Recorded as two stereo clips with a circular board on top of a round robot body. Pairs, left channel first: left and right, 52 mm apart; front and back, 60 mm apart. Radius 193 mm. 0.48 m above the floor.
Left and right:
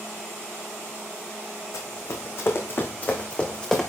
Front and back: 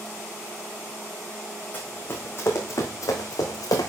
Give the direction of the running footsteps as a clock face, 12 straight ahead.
10 o'clock.